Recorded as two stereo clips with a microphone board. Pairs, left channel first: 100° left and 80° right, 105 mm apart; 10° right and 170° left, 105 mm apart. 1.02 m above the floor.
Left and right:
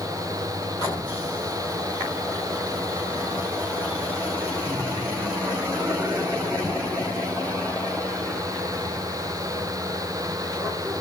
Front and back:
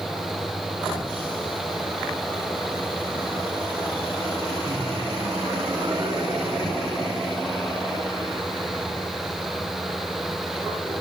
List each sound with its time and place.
4.7 s laughter: 140° right